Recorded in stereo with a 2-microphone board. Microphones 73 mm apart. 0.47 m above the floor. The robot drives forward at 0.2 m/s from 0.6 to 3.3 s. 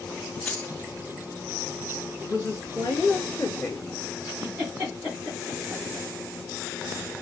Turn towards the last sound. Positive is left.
turn(degrees=-25)  # may be behind; listen again after turning